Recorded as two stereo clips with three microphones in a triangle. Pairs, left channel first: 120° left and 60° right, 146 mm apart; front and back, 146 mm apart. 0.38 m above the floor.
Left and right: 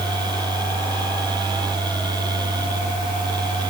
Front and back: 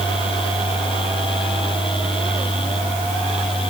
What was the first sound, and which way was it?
Only background noise.